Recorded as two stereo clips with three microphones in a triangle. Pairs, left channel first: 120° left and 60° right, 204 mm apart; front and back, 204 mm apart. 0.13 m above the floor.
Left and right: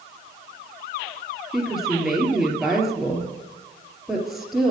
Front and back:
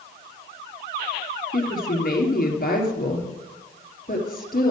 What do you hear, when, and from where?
1.5 s a woman speaking: 30° left, 2.5 m